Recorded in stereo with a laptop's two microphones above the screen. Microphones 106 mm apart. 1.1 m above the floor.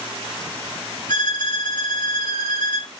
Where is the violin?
40° left (ahead or behind), 1.7 m.